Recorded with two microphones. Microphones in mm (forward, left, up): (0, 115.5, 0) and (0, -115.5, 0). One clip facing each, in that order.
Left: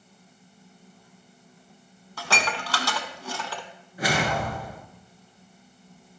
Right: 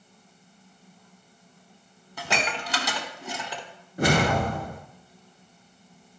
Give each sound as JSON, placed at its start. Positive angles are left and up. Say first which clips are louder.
{"t": 2.2, "sound": "dishes clattering", "louder": "even", "side_deg": -20, "distance_m": 0.8}
{"t": 4.0, "sound": "a whoosh", "louder": "right 4 dB", "side_deg": -55, "distance_m": 1.0}